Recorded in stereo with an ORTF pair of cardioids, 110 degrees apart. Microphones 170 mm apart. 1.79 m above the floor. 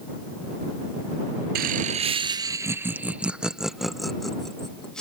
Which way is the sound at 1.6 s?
65° right.